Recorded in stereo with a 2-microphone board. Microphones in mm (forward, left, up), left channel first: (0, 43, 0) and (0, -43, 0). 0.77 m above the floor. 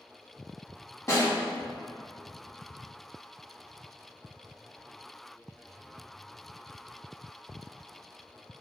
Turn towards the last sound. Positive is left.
turn(degrees=35)  # may be behind; listen again after turning